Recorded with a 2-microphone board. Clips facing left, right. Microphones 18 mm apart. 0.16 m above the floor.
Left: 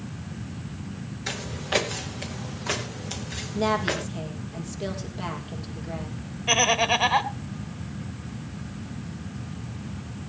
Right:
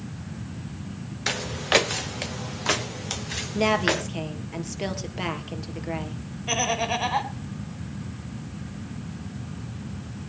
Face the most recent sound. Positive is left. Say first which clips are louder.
# left 4 dB
turn(degrees=25)  # may be behind; listen again after turning